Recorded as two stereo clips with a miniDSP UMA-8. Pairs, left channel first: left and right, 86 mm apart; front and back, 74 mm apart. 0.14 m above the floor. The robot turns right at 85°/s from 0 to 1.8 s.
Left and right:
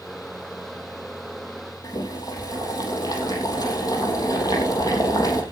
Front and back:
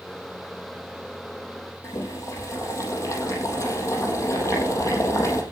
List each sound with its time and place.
1.8 s boiling: 45° left, 4 m